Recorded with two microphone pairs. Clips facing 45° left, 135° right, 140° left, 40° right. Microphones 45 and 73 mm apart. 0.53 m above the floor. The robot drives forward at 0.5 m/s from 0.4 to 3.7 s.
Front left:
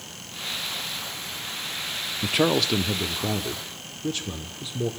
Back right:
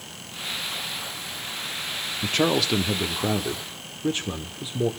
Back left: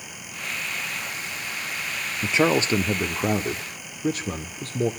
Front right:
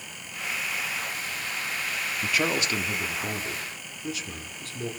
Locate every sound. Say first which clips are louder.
2.2 s a man speaking: even, back left 7 dB; 105° left, 0.6 m; by 4.9 s 165° left, 1.0 m